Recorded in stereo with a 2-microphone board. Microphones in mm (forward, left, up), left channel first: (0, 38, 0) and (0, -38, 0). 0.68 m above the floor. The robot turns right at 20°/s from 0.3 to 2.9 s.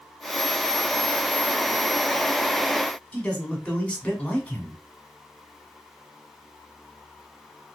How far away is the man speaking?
About 1.6 m.